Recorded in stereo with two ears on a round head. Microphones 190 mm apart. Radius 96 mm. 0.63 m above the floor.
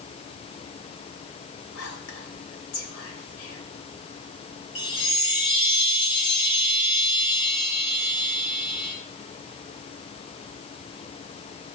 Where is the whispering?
70° left (ahead or behind), 2.5 m.